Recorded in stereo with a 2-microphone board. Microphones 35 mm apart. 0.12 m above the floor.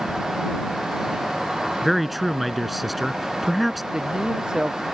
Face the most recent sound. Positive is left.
turn(degrees=-20)  # may be behind; listen again after turning